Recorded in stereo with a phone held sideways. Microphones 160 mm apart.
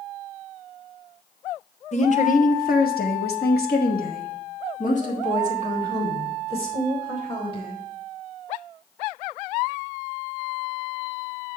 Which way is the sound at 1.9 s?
45° left (ahead or behind).